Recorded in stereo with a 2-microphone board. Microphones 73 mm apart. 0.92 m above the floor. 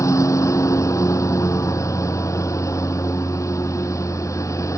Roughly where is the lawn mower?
Left.